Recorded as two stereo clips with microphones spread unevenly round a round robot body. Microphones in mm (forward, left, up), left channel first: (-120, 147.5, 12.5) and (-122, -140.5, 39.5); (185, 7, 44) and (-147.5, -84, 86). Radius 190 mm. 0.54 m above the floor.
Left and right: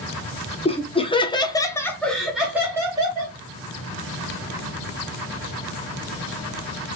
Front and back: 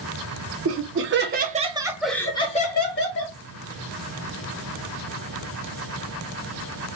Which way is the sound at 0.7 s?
150° left.